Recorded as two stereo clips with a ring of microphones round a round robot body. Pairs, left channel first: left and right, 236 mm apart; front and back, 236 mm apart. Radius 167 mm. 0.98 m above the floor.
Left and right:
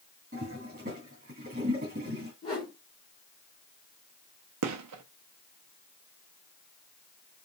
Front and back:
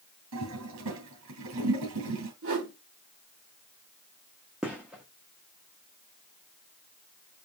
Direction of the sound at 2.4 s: 160° left.